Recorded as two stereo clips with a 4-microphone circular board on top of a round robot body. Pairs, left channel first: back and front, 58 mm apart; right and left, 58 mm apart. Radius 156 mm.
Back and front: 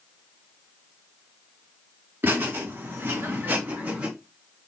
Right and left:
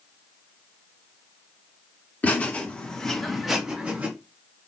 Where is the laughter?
40° right, 1.8 m; by 4.1 s 50° left, 1.4 m.